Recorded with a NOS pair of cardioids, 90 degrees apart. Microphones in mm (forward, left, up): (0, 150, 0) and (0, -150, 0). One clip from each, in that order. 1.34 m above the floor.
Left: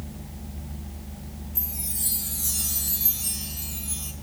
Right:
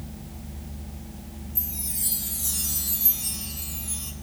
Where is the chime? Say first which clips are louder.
Even; straight ahead, 3.5 m.